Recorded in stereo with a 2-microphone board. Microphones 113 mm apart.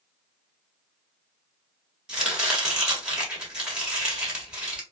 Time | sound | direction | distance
2.1 | chopping | 10° right (ahead or behind) | 1.5 m